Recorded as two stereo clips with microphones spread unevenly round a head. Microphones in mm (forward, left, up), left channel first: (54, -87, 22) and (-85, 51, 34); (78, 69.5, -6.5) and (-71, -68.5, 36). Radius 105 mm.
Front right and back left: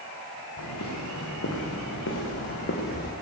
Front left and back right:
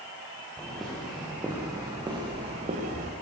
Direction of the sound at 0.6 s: 45° right.